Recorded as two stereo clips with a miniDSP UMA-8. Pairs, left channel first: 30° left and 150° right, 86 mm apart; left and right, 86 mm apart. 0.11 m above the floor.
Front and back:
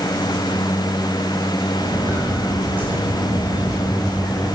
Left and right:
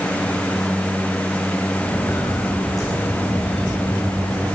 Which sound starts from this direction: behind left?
Footsteps, at 1.8 s.